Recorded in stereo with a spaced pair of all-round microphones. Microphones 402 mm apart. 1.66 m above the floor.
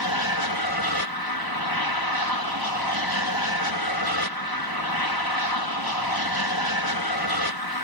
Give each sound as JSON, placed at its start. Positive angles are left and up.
{"t": 0.0, "sound": "an aircraft", "side_deg": 70}